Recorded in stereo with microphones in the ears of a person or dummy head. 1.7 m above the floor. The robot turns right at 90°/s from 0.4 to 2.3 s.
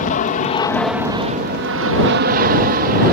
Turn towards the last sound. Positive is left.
turn(degrees=-55)